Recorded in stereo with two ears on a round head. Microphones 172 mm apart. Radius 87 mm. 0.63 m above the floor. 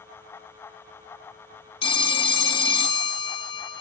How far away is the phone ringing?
About 0.9 m.